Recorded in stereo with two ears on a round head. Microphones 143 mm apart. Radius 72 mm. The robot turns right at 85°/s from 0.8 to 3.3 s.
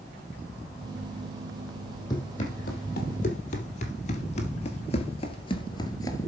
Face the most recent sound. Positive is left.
turn(degrees=20)  # may be behind; listen again after turning